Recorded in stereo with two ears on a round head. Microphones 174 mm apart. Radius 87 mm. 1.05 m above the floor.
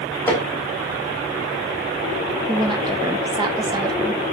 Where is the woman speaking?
20° right (ahead or behind), 1.1 m.